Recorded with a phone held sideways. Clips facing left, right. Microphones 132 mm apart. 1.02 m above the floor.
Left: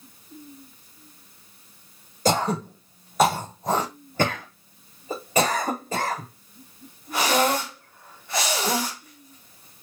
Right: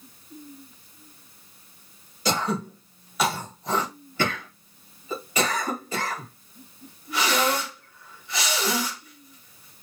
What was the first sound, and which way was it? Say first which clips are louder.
Throat clearing: left 3 dB; 45° left (ahead or behind).